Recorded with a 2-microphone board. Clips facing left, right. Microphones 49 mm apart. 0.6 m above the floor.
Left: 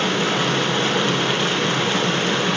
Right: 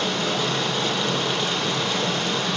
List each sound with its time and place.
0.0 s running water: 45° left (ahead or behind), 0.9 m